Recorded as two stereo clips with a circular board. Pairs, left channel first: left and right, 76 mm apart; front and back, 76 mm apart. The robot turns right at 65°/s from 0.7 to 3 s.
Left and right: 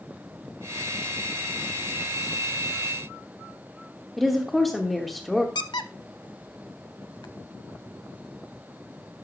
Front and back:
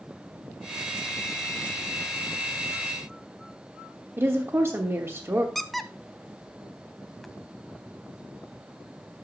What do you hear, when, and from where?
4.2 s a woman speaking: 175° left, 1.2 m
5.5 s a squeak: 85° left, 0.6 m